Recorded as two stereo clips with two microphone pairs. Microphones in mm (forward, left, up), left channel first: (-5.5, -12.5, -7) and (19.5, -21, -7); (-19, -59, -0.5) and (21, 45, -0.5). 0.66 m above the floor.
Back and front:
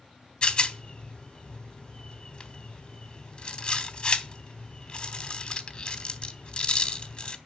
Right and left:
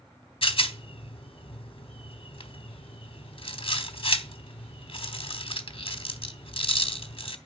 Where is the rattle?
145° right, 0.8 m.